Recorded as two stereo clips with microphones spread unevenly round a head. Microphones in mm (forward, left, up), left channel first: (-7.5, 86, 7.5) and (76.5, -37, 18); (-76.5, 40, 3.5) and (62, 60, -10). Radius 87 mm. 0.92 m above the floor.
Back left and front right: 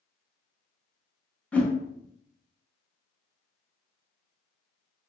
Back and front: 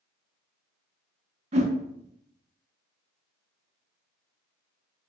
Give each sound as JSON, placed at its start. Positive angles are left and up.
{"t": 1.5, "sound": "a whoosh", "azimuth_deg": 45, "distance_m": 1.1}